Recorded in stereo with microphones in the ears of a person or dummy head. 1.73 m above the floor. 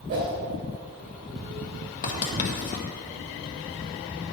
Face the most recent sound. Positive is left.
turn(degrees=40)  # may be behind; listen again after turning